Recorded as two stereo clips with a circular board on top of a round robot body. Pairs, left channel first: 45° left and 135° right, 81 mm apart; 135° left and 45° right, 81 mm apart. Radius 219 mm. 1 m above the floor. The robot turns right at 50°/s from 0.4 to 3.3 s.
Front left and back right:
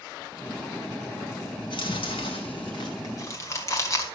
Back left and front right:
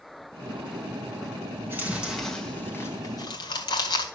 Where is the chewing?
15° left, 1.7 m; by 4.0 s 100° left, 1.7 m.